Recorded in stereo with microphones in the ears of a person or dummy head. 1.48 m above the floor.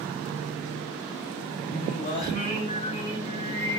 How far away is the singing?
About 3.5 m.